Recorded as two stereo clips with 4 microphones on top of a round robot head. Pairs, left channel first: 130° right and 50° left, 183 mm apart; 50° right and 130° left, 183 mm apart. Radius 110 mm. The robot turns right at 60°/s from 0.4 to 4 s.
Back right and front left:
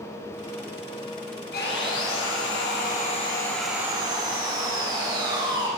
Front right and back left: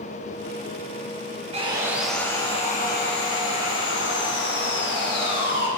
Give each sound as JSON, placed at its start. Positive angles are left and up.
{"t": 1.5, "sound": "sawing", "azimuth_deg": -170, "distance_m": 7.0}